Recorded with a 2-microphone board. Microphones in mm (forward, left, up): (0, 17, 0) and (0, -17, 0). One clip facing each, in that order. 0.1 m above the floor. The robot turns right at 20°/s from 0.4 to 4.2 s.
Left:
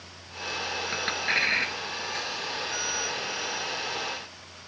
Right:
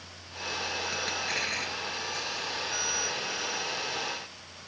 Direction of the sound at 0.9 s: 30° left (ahead or behind).